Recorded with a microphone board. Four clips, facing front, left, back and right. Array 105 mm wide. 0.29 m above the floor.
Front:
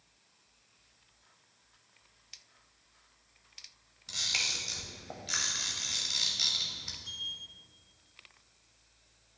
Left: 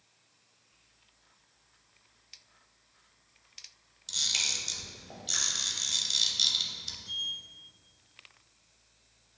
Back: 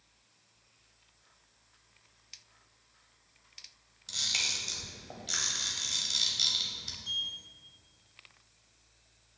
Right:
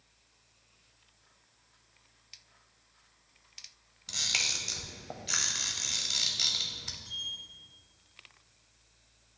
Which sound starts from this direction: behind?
A sliding door, at 7.0 s.